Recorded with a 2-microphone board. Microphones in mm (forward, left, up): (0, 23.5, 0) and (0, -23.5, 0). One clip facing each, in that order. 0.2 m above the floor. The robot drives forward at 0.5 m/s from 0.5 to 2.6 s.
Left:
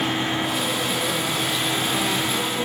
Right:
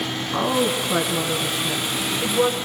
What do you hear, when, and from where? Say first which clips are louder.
0.3 s a woman speaking: right 3 dB; 50° right (ahead or behind), 2 m; by 2.6 s 45° right (ahead or behind), 2.5 m